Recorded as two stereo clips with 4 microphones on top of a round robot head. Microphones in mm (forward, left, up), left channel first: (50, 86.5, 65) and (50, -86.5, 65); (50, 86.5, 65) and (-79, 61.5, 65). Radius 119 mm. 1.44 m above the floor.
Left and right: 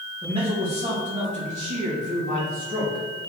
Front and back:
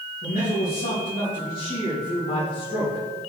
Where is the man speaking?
30° right, 2.5 m; by 3.0 s 55° right, 3.5 m.